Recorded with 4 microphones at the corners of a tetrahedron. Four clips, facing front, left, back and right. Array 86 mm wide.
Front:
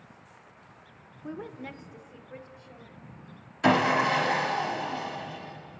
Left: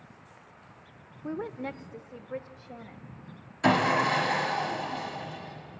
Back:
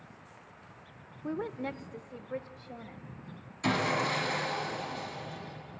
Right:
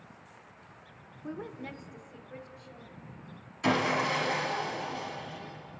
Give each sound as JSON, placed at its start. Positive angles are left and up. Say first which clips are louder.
{"t": 1.2, "sound": "a woman speaking", "louder": "left 5 dB, back 4 dB", "azimuth_deg": 120, "distance_m": 0.7}
{"t": 3.6, "sound": "sawing", "louder": "left 4 dB, front 7 dB", "azimuth_deg": 35, "distance_m": 1.9}